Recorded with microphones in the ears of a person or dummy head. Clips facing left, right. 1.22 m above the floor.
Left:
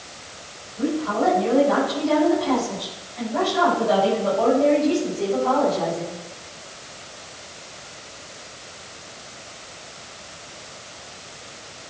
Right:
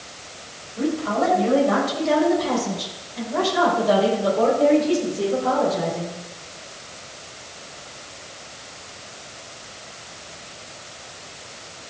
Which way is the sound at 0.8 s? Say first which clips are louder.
Even; 80° right.